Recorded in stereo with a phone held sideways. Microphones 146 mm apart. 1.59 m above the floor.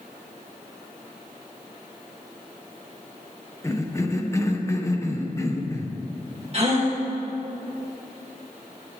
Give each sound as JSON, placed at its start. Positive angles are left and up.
{"t": 3.6, "sound": "a cough", "side_deg": 20, "distance_m": 1.3}
{"t": 6.5, "sound": "a gasp", "side_deg": -45, "distance_m": 2.0}